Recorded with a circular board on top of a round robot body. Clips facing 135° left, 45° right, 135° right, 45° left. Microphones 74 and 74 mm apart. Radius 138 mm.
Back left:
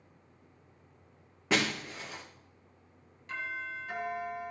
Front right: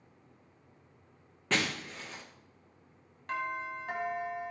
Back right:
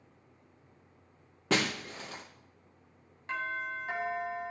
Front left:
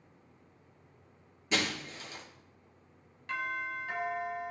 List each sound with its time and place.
1.5 s breaking glass: 145° right, 3.5 m
3.3 s a doorbell: 75° right, 4 m